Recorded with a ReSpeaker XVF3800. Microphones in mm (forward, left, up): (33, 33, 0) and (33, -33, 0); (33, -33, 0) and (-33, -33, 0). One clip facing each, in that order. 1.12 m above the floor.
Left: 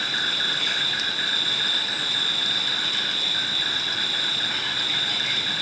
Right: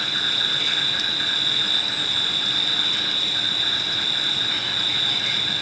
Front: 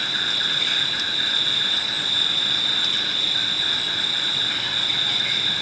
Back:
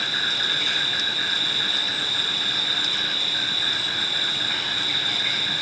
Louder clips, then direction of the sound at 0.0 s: Even, back 1 dB; 125° left.